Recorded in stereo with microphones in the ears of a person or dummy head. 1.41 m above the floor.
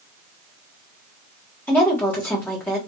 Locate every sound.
1.7 s a woman speaking: 10° left (ahead or behind), 1.4 m